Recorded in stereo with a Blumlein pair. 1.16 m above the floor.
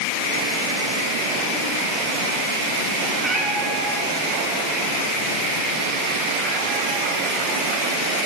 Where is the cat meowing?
5° right, 4.5 m; by 7.1 s 20° left, 5 m.